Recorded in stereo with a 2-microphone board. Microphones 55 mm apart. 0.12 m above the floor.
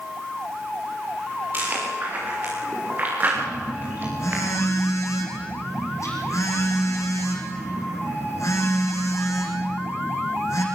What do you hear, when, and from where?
1.5 s chewing: 35° right (ahead or behind), 8.5 m
3.4 s a phone buzzing: 70° left (ahead or behind), 5 m